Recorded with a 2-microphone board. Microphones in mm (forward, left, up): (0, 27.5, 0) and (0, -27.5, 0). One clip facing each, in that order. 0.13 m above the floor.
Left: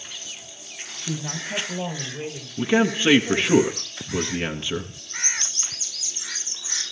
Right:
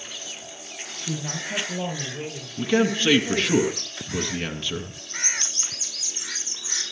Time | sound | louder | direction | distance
1.1 | a woman speaking | even | centre (ahead or behind) | 9.5 m
2.6 | a man speaking | left 1 dB | 20° left (ahead or behind) | 1.9 m